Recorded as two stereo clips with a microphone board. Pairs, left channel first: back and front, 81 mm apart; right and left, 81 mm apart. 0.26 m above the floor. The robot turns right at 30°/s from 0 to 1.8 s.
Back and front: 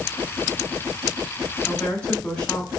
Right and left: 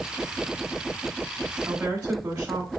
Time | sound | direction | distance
1.6 | a woman speaking | 100° left | 1.2 m